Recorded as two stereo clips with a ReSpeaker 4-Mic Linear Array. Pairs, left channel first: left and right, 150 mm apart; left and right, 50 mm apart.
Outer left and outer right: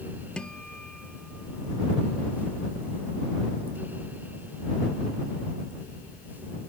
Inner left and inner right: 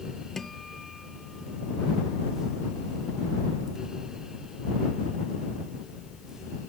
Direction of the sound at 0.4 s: 5° left (ahead or behind).